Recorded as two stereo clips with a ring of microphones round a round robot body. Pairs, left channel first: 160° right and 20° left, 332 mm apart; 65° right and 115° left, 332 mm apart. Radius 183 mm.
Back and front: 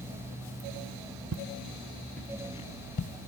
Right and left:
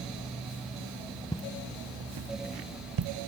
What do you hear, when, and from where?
1.3 s footsteps: straight ahead, 0.6 m; by 3.1 s 135° left, 1.2 m